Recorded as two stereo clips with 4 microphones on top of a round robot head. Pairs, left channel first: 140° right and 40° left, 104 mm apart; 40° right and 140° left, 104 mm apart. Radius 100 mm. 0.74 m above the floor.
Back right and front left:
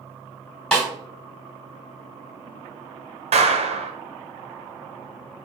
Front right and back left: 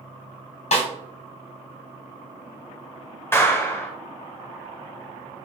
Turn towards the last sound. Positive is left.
turn(degrees=25)